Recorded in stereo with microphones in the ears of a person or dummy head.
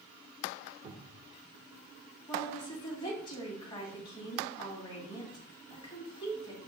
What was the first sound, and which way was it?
A cupboard door, 40° right (ahead or behind).